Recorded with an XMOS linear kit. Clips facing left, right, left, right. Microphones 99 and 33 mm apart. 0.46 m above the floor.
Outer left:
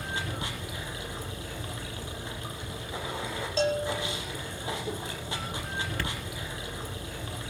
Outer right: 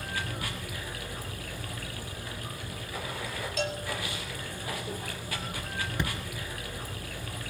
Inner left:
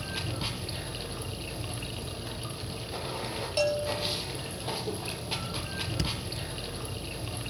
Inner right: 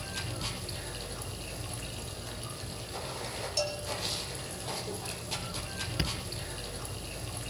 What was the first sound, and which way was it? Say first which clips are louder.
Running water: outer left 1 dB, inner left 3 dB; 25° left (ahead or behind).